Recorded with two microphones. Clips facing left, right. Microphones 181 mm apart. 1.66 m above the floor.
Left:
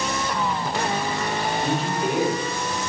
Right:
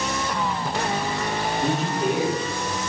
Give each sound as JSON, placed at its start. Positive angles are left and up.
{"t": 1.6, "sound": "a man speaking", "side_deg": -45, "distance_m": 1.5}